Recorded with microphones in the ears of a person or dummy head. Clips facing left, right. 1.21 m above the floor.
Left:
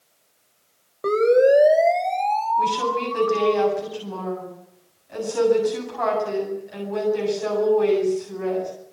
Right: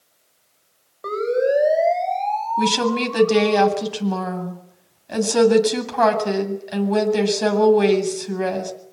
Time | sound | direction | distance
1.0 | a siren | 35° left (ahead or behind) | 6 m
2.6 | a woman speaking | 90° right | 7.5 m